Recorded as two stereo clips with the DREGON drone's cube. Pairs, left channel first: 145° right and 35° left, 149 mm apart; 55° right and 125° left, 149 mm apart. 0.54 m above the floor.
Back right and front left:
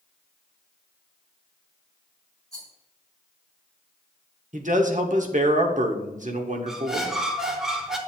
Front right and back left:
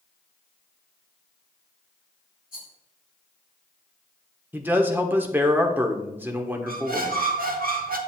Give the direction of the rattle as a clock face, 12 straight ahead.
1 o'clock.